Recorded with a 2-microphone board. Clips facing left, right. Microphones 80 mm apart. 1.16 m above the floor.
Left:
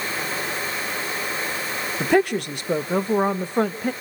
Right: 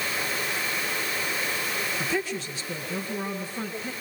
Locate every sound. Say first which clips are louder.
2.0 s a woman speaking: left 15 dB; 65° left (ahead or behind), 1.0 m